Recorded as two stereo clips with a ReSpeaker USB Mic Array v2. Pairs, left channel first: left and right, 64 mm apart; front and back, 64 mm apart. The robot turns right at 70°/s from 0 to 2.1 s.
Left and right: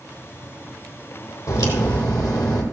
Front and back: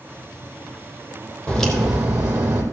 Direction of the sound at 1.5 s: 75° left.